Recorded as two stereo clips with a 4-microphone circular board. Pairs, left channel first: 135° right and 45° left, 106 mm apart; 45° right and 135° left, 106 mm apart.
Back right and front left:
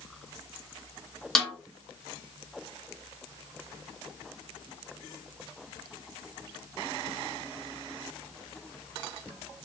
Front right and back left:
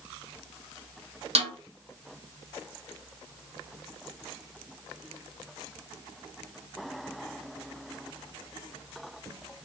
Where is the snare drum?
140° left, 1.5 m.